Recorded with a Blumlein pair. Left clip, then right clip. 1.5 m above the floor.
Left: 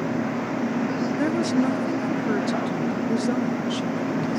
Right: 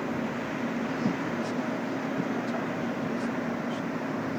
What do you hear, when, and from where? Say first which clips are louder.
0.0 s a machine running: left 5 dB; 70° left
1.2 s a woman speaking: left 8 dB; 55° left